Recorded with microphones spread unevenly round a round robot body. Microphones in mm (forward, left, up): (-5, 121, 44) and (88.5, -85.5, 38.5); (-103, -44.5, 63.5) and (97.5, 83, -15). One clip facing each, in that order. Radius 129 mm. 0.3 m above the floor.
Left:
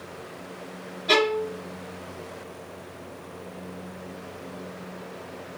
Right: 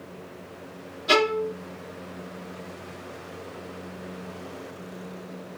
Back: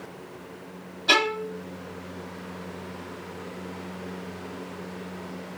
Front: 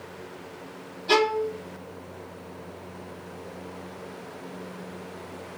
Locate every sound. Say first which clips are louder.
1.1 s a violin: even, front 5 dB; 125° right, 1.4 m